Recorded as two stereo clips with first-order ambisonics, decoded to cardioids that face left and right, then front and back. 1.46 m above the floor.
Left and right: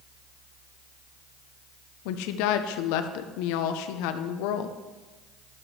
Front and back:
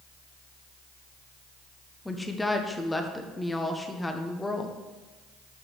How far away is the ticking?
I don't hear ticking.